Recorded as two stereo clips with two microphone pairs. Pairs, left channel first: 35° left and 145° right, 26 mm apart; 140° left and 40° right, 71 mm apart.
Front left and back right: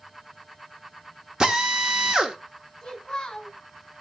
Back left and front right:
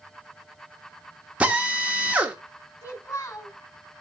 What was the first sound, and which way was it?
A drill, 105° right.